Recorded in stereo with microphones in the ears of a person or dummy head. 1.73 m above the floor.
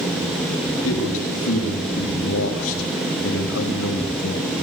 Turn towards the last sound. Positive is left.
turn(degrees=85)